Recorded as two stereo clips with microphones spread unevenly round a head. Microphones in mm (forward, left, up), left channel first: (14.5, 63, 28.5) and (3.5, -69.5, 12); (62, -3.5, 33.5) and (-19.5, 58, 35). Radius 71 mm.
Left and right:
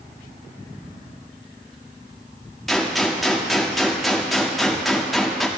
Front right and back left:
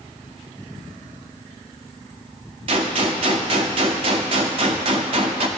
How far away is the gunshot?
About 0.9 m.